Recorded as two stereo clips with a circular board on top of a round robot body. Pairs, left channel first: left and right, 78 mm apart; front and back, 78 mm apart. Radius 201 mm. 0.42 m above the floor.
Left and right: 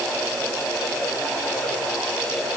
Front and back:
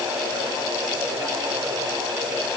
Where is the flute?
No flute in this recording.